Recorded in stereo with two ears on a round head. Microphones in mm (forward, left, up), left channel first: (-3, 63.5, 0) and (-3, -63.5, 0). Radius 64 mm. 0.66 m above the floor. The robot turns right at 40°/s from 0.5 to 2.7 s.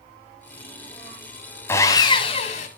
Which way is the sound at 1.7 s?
20° left.